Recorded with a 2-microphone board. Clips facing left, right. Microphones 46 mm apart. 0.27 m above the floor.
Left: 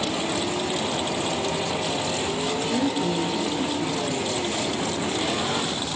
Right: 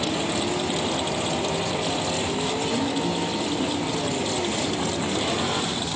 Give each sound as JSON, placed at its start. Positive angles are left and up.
{"t": 2.7, "sound": "a woman speaking", "side_deg": 25, "distance_m": 4.5}